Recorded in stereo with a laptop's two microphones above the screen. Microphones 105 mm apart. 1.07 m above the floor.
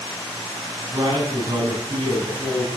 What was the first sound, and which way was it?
A man speaking, 40° right (ahead or behind).